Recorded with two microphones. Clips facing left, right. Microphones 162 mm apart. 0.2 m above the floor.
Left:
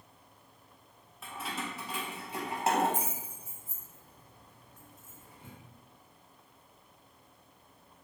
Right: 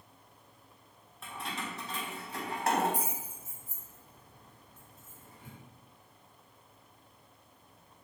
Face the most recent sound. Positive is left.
turn(degrees=25)  # may be behind; listen again after turning